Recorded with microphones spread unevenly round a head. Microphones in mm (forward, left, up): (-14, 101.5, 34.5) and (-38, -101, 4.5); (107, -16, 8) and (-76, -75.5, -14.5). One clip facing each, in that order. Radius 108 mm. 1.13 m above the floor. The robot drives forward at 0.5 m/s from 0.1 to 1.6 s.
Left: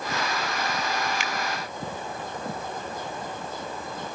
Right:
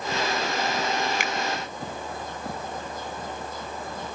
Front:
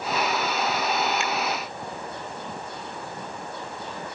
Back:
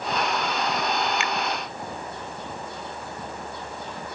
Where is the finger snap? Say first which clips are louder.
Right 2 dB, even; 135° right.